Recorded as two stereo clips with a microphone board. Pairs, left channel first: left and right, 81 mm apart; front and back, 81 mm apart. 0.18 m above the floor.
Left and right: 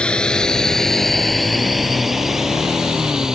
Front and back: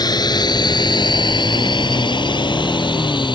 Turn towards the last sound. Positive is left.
turn(degrees=-10)